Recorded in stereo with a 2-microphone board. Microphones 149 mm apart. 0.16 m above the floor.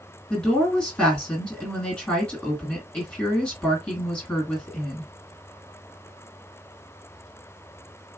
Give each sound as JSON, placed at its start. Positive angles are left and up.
{"t": 0.3, "sound": "a woman speaking", "side_deg": 5, "distance_m": 2.0}